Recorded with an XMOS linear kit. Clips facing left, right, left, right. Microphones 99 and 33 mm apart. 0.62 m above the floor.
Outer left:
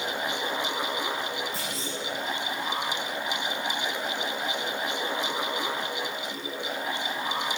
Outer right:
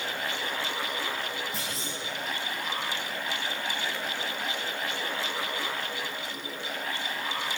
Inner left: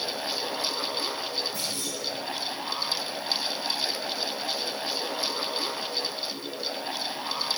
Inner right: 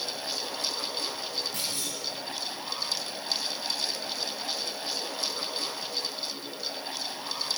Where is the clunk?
80° right, 3 m.